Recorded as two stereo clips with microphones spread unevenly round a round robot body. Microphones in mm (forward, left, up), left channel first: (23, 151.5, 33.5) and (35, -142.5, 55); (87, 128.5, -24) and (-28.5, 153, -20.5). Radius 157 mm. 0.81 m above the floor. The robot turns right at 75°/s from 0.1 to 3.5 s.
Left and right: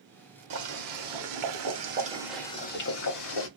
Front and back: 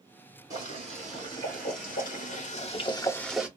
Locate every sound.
0.5 s boiling: 135° right, 1.2 m; by 3.5 s 90° left, 1.2 m